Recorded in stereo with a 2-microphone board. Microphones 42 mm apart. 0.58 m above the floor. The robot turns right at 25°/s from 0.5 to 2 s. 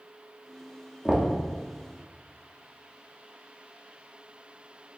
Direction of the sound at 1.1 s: 15° right (ahead or behind).